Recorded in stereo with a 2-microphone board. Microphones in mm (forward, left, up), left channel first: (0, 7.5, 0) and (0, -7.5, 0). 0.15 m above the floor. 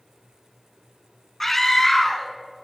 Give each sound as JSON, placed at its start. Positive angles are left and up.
{"t": 1.4, "sound": "a scream", "side_deg": 20, "distance_m": 1.5}